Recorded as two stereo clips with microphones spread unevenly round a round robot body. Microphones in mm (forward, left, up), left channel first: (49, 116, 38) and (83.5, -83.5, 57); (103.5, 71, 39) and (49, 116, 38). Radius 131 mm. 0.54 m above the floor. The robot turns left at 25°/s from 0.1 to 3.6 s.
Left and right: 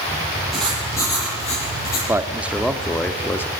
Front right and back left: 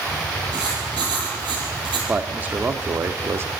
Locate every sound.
0.5 s writing: 170° right, 7.5 m; by 2.0 s 155° left, 7.5 m
2.1 s a man speaking: 160° right, 1.5 m; by 3.5 s 165° left, 1.5 m